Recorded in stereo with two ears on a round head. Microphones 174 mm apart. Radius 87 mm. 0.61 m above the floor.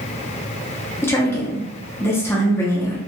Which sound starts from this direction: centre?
A woman speaking, at 1.0 s.